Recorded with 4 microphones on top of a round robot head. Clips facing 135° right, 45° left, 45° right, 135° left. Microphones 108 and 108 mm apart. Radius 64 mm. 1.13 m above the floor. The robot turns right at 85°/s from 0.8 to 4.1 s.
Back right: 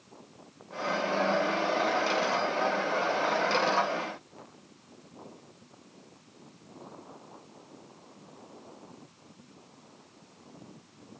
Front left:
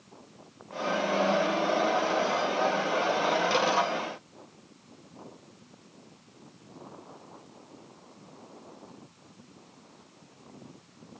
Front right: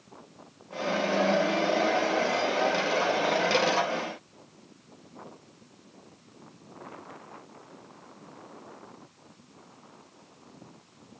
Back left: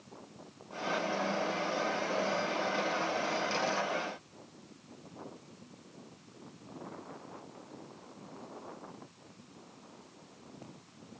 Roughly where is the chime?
I don't hear a chime.